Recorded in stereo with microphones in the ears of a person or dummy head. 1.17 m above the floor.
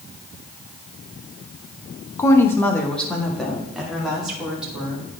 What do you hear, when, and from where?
2.2 s a woman speaking: 10° left (ahead or behind), 1.0 m; by 5.0 s 10° right (ahead or behind), 3 m